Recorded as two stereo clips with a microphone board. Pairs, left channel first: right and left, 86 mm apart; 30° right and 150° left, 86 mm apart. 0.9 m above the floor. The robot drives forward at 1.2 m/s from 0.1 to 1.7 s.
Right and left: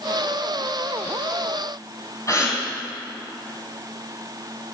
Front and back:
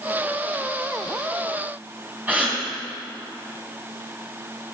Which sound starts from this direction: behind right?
A gasp, at 2.3 s.